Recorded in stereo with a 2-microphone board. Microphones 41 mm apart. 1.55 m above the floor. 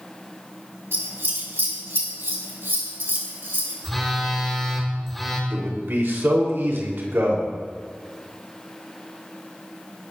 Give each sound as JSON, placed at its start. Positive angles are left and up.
{"t": 0.9, "sound": "scissors", "side_deg": -70, "distance_m": 3.0}
{"t": 3.8, "sound": "a phone buzzing", "side_deg": 0, "distance_m": 3.5}
{"t": 5.5, "sound": "a man speaking", "side_deg": -70, "distance_m": 3.0}